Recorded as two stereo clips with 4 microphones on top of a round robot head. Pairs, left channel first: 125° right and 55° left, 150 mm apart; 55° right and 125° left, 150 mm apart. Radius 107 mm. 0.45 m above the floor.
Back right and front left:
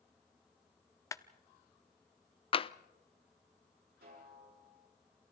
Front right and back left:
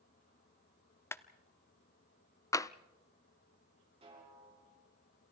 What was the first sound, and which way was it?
A clap, 100° right.